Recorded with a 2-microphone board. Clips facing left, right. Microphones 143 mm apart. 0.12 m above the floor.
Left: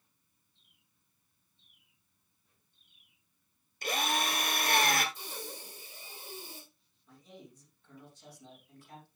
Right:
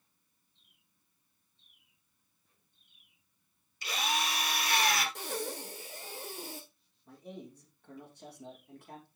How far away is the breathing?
About 1.6 m.